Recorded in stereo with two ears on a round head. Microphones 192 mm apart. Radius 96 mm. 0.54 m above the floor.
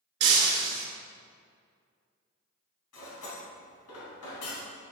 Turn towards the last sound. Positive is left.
turn(degrees=80)